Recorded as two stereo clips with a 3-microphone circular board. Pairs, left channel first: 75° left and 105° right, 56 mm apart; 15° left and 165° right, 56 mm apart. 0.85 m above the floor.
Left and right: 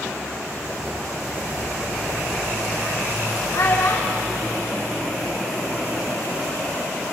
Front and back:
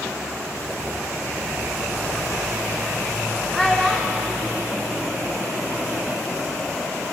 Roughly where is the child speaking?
Left.